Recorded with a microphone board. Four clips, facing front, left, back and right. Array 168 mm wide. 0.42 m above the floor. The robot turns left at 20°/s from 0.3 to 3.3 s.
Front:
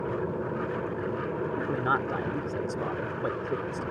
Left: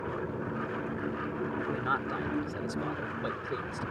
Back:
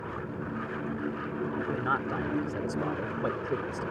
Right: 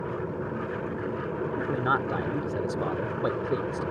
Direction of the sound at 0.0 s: 20° right.